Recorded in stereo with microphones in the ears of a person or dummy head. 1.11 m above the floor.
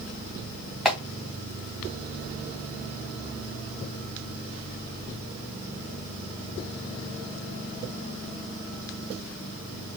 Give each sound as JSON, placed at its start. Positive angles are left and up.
{"t": 0.8, "sound": "a clap", "side_deg": 0, "distance_m": 1.6}